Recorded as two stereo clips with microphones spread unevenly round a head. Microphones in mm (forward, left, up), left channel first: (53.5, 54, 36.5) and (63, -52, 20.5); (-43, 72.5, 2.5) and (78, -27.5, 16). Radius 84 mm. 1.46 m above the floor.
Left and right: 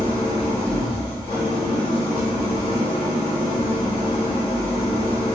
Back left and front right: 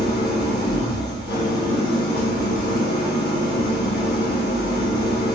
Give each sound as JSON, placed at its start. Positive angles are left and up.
{"t": 0.0, "sound": "an engine running", "azimuth_deg": 130, "distance_m": 1.2}